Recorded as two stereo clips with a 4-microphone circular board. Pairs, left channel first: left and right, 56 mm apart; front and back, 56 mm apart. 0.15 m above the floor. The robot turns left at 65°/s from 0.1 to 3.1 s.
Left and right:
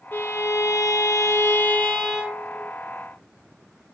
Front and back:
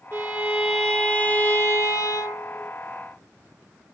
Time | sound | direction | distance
0.1 | a violin | 140° left | 2.5 m